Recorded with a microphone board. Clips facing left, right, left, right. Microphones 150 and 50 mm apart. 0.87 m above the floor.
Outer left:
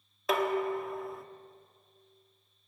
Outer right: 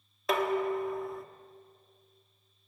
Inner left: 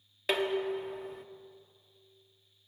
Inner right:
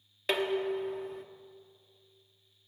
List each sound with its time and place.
0.3 s dishes clattering: centre (ahead or behind), 1.1 m